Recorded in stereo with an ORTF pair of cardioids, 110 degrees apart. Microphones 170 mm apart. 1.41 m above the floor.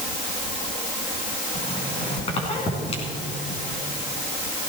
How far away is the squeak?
About 3.5 m.